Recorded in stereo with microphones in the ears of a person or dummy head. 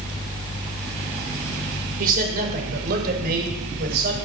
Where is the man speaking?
50° right (ahead or behind), 5 m; by 4.2 s 55° right (ahead or behind), 7 m.